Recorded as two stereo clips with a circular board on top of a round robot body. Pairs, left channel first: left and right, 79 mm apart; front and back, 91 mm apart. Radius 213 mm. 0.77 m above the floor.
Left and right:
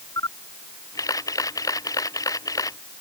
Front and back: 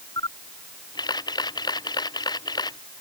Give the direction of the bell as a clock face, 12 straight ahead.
No bell in this recording.